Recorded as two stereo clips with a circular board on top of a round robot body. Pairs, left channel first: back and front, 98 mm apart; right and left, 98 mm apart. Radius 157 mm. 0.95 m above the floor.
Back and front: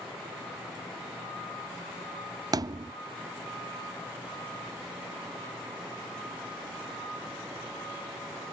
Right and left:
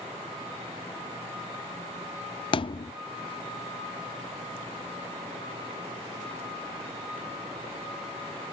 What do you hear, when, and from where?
2.5 s a thud: 50° right